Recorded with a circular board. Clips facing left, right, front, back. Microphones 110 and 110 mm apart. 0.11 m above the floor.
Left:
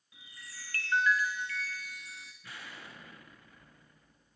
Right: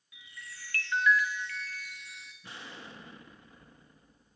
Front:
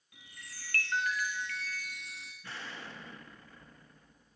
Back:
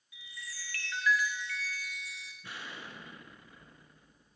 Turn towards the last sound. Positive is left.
turn(degrees=-120)